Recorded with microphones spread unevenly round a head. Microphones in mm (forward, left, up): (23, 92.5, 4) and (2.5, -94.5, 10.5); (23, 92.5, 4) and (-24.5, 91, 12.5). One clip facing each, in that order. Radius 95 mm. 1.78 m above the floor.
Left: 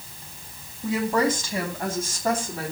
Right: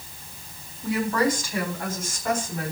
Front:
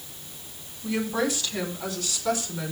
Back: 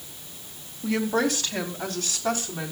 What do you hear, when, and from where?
0.8 s a woman speaking: 155° left, 3 m; by 2.7 s 140° left, 4.5 m